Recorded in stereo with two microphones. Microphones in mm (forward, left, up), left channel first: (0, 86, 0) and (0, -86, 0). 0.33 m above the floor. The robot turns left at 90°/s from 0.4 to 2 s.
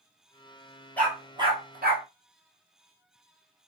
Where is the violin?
I don't hear a violin.